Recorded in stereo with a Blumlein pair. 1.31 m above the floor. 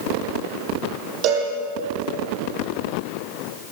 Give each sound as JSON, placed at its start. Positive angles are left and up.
{"t": 1.2, "sound": "a cowbell", "azimuth_deg": -40, "distance_m": 9.0}